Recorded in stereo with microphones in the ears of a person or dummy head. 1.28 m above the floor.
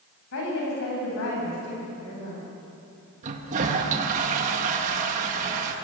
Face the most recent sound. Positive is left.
turn(degrees=-40)  # may be behind; listen again after turning